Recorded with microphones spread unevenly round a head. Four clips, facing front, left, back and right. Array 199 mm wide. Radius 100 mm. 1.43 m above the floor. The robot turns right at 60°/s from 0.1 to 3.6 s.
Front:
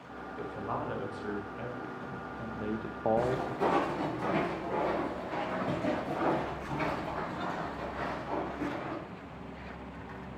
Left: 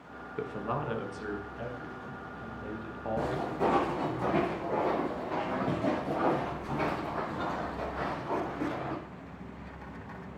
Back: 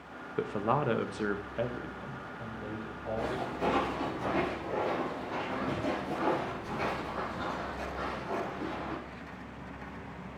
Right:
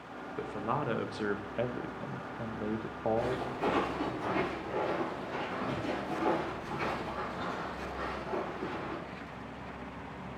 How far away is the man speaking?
About 1.2 m.